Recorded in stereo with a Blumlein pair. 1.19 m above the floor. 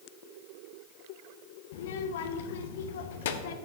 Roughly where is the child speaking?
Ahead left.